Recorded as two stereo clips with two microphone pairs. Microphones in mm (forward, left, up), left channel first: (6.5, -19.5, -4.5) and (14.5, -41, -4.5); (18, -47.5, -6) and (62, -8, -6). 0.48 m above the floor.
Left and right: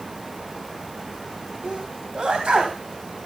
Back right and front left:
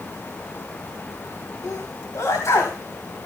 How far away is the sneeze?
About 2.5 m.